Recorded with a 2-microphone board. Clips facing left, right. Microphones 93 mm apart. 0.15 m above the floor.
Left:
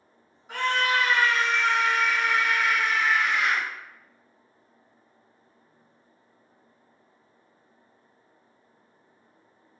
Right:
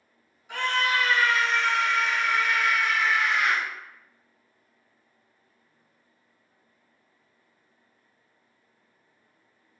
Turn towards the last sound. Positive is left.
turn(degrees=-15)  # may be behind; listen again after turning